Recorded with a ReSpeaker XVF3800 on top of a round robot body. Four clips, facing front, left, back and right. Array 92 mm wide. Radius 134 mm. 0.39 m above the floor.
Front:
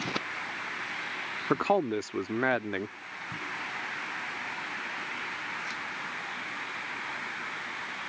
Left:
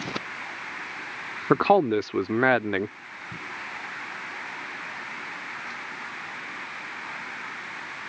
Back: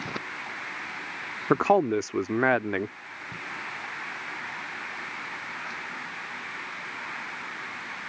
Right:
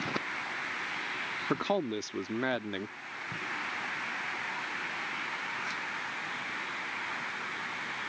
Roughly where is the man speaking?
Behind left.